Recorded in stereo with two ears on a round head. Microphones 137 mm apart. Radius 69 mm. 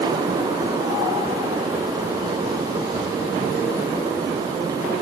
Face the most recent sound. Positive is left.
No sound to turn to.